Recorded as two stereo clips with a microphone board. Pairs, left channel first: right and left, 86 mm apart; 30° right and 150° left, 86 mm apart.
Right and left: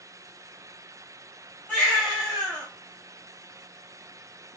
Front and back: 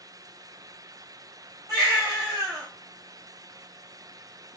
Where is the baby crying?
165° right, 3 m.